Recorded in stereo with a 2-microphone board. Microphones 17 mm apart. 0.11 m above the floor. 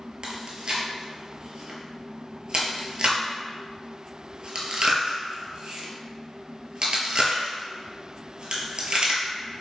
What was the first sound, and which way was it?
Chewing, 60° right (ahead or behind).